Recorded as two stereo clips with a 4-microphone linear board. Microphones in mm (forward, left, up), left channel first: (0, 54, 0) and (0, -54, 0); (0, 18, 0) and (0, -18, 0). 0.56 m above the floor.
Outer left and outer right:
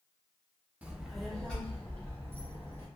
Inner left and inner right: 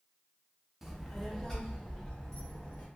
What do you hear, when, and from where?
0.8 s a child speaking: 10° right (ahead or behind), 0.5 m; by 2.9 s 20° left (ahead or behind), 1.6 m